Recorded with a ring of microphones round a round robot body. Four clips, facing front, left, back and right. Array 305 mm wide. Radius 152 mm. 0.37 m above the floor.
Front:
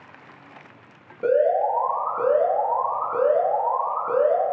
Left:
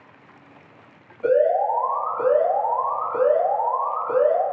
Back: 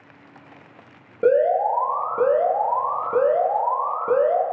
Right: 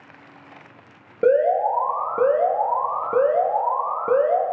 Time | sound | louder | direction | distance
1.2 | an alarm | right 1 dB, back 2 dB | 115° right | 5.5 m